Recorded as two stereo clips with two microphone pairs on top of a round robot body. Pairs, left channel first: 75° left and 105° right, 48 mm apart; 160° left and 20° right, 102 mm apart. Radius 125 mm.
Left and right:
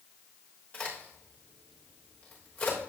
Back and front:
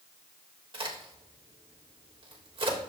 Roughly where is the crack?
Ahead.